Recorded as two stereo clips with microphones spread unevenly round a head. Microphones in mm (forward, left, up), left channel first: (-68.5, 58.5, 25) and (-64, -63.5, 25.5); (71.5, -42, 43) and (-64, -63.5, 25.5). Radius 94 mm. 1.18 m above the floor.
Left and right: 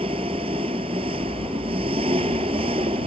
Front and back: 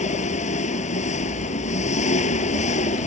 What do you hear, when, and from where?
0.0 s an engine running: 25° right